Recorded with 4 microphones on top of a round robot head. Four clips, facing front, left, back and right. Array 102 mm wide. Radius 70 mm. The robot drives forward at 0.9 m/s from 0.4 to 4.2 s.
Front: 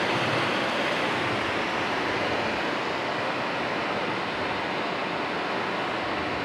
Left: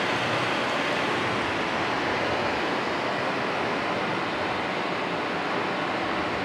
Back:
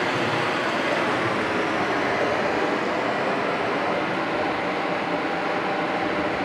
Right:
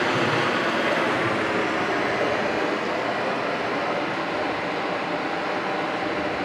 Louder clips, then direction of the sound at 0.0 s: Right 4 dB, back 2 dB; 100° right.